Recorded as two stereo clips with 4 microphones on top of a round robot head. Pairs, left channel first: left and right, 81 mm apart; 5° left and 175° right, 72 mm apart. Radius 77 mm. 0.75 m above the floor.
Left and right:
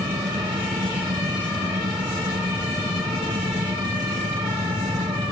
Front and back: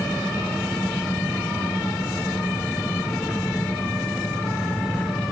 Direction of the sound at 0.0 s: 80° right.